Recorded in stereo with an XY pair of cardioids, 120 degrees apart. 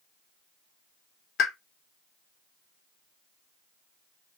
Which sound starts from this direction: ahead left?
A pop, at 1.4 s.